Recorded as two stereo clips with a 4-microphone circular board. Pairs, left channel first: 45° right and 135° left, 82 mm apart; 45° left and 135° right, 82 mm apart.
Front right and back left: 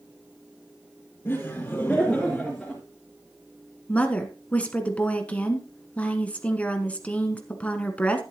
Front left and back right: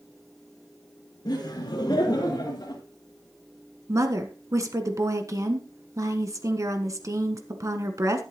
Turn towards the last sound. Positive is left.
turn(degrees=-110)